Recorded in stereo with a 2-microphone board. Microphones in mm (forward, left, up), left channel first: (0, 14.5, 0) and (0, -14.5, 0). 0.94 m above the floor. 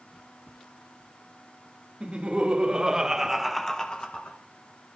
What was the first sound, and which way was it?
Laughter, 35° right (ahead or behind).